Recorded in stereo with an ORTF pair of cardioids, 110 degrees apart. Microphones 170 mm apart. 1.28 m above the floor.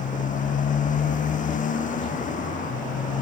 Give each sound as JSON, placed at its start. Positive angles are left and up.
{"t": 0.0, "sound": "a motorcycle", "azimuth_deg": 50}